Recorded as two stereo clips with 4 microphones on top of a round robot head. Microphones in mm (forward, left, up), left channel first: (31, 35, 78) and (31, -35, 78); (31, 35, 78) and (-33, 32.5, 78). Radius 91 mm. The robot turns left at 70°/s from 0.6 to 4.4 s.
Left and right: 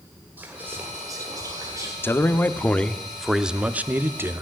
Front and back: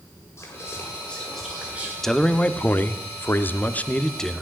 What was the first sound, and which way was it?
Whispering, 30° right.